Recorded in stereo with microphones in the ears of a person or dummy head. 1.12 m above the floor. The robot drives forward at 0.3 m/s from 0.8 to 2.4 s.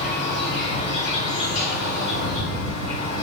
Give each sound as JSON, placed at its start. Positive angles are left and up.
{"t": 0.0, "sound": "an insect", "side_deg": 40, "distance_m": 1.2}